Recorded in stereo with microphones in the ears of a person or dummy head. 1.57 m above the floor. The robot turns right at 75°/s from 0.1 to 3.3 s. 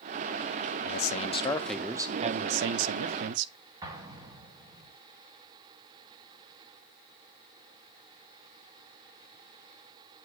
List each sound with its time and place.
0.8 s a man speaking: 115° left, 0.6 m; by 3.5 s 65° right, 0.6 m
3.8 s an explosion: 20° right (ahead or behind), 1.6 m